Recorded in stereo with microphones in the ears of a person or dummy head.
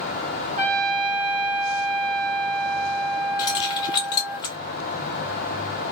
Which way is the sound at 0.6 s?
40° right (ahead or behind).